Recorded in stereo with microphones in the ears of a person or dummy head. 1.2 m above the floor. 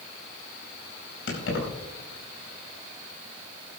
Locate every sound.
1.3 s keys jangling: 70° left (ahead or behind), 5 m